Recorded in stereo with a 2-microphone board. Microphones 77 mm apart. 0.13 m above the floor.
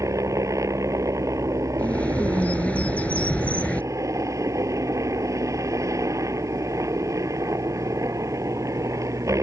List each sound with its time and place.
0.0 s a helicopter: 40° right (ahead or behind)
1.8 s a bird: 20° left (ahead or behind)